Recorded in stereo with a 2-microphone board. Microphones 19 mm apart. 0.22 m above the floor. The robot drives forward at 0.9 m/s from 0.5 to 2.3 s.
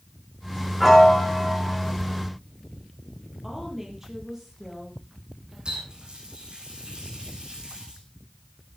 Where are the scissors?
No scissors in this recording.